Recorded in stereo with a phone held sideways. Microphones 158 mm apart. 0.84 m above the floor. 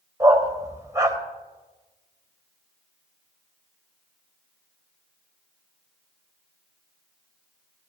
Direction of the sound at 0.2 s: 20° right (ahead or behind).